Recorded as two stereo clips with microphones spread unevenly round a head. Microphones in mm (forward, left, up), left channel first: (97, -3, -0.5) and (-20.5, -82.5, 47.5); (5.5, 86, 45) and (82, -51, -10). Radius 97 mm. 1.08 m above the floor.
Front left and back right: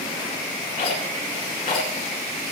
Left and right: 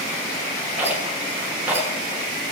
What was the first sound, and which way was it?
A rattle, 20° left.